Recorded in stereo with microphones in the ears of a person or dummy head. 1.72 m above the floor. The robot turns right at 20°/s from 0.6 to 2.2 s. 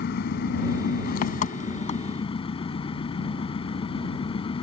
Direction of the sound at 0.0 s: 120° left.